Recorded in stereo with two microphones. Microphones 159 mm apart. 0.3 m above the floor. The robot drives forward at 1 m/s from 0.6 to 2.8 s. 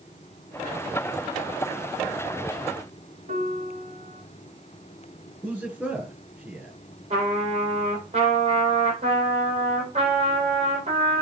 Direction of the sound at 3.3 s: 50° right (ahead or behind).